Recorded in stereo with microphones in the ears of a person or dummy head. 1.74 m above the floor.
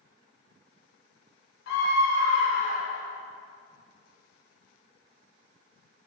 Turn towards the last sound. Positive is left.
turn(degrees=75)  # may be behind; listen again after turning